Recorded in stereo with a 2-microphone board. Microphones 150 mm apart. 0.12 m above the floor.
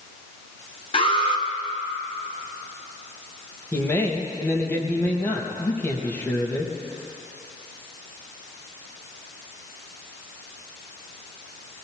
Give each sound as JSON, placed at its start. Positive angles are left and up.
{"t": 0.9, "sound": "an alarm", "side_deg": 40, "distance_m": 2.0}
{"t": 3.7, "sound": "a man speaking", "side_deg": 15, "distance_m": 3.5}